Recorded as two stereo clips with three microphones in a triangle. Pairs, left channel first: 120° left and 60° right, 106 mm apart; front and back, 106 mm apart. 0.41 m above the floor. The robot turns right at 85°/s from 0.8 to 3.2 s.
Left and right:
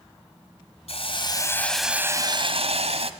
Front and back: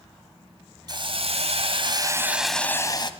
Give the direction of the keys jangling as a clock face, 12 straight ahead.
No keys jangling in this recording.